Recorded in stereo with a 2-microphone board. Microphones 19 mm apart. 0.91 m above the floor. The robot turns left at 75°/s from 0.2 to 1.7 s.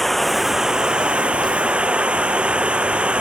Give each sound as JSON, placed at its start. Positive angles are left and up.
{"t": 0.0, "sound": "running water", "azimuth_deg": 5}